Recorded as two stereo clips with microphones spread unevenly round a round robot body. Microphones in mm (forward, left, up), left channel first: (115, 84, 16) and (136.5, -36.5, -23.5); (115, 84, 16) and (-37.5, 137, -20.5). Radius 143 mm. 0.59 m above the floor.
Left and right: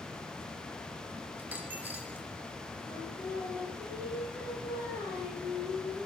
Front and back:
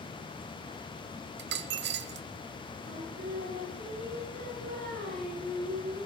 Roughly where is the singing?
Behind.